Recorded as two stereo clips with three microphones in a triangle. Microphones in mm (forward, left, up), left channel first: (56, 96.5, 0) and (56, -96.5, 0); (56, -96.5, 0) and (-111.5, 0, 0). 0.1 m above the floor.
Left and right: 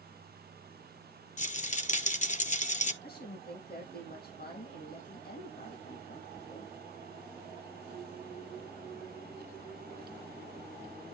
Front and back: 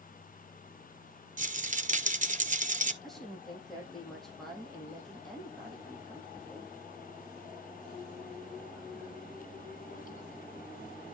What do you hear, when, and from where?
1.4 s a rattle: 120° left, 0.8 m
3.0 s a woman speaking: 60° left, 4 m